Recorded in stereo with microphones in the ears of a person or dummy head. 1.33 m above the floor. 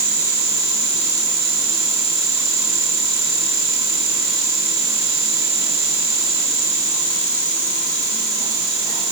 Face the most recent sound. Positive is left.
No sound to turn to.